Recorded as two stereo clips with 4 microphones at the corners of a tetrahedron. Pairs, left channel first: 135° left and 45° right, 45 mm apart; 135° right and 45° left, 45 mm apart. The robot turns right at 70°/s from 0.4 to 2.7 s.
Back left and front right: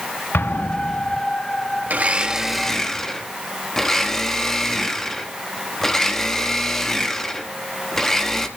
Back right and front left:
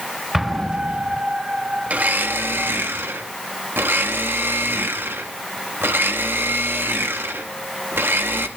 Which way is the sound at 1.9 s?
5° right.